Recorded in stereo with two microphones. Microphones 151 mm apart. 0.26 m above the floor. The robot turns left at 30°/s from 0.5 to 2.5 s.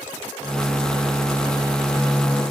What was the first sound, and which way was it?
Only background noise.